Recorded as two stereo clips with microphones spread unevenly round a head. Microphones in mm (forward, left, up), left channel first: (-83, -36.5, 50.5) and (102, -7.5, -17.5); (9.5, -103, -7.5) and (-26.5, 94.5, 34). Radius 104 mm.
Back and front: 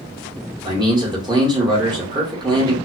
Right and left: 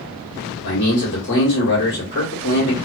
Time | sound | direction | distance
0.6 | a man speaking | 55° right | 1.3 m